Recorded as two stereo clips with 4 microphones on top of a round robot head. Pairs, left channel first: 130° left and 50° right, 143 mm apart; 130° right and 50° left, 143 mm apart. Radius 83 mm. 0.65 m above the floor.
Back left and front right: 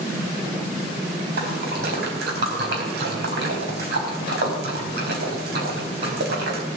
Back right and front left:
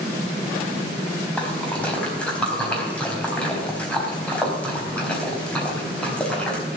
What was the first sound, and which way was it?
A splash, 50° right.